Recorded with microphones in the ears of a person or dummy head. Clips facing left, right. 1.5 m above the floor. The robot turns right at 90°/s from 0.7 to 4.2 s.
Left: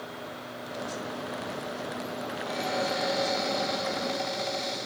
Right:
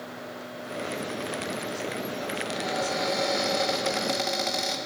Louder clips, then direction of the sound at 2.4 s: Left 1 dB; 100° left.